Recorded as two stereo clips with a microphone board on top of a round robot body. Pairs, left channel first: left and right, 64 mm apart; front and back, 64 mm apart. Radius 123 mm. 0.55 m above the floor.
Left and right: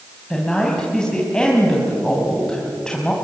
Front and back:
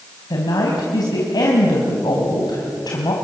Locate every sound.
0.3 s a woman speaking: 10° left, 4 m